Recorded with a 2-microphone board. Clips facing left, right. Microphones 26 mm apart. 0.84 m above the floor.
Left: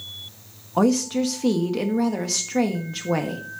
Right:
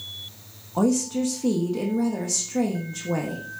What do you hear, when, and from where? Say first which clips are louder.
0.8 s a woman speaking: left 2 dB; 50° left (ahead or behind), 1.2 m